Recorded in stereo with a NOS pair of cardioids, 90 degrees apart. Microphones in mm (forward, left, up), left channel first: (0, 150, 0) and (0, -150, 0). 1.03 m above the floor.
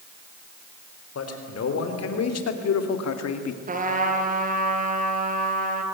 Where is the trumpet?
30° right, 3.5 m.